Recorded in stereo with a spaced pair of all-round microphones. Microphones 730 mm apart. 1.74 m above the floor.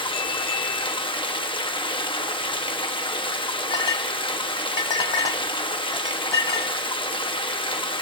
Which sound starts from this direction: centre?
Running water, at 0.0 s.